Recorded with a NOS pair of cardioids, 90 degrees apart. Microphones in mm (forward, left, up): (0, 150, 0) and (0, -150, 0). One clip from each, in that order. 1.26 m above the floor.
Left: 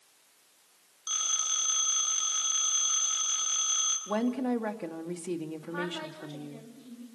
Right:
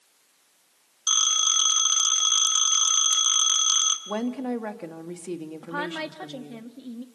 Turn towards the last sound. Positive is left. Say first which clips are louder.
# right 5 dB
turn(degrees=-70)